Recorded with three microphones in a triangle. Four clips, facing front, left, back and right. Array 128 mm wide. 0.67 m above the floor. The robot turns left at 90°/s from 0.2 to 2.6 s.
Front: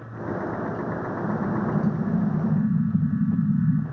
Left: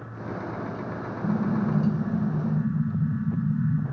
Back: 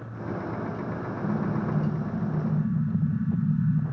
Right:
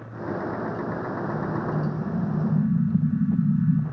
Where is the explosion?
85° left, 2 m; by 3.8 s 40° right, 2 m.